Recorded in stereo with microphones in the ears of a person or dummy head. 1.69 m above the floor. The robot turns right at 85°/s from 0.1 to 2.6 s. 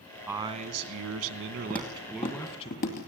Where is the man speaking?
165° right, 1.9 m; by 2.7 s 30° left, 1.9 m.